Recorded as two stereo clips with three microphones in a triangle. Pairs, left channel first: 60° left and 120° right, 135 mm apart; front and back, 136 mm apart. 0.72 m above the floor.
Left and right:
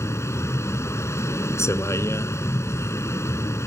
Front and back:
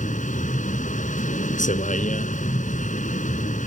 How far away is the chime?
I don't hear a chime.